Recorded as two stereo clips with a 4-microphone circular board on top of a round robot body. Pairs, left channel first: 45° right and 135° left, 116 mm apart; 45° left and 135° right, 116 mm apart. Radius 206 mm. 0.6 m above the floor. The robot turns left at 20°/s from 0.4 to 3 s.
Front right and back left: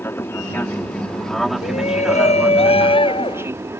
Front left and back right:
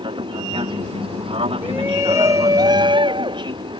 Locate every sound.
0.0 s an aircraft: 110° right; by 3.8 s 160° right
1.6 s a shout: 60° right; by 3.5 s 85° right